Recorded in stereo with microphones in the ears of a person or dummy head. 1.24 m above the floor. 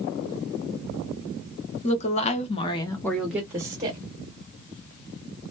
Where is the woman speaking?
35° left (ahead or behind), 0.9 m; by 4.0 s 20° right (ahead or behind), 0.9 m.